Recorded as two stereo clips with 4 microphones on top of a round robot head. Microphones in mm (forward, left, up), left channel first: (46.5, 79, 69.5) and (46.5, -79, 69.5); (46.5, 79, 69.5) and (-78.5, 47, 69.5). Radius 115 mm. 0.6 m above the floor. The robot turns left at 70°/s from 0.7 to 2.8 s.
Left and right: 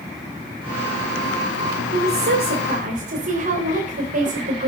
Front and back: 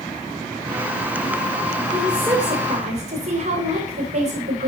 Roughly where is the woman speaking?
Right.